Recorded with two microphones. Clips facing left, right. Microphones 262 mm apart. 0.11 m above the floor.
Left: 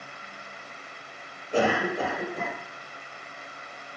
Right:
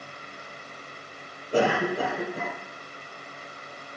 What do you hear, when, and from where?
1.5 s a cough: 40° right (ahead or behind), 3.5 m